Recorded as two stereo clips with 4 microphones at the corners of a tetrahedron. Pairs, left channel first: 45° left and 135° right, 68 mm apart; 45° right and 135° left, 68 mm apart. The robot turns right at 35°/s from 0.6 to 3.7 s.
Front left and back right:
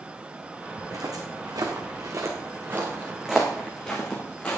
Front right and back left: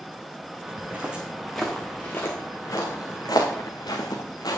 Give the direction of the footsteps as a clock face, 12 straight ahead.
5 o'clock.